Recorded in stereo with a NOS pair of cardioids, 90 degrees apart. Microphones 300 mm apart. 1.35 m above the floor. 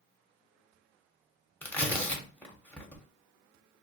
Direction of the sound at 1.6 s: 5° left.